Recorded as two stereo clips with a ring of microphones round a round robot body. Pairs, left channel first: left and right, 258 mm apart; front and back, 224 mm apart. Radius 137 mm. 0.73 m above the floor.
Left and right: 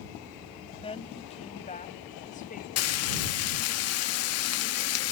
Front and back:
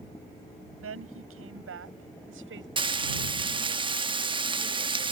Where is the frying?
110° left.